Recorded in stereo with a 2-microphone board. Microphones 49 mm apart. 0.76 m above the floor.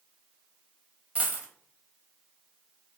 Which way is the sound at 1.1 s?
30° right (ahead or behind).